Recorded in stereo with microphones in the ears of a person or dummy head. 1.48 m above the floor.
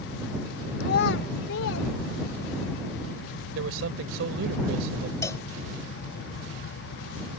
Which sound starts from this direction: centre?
A cowbell, at 5.2 s.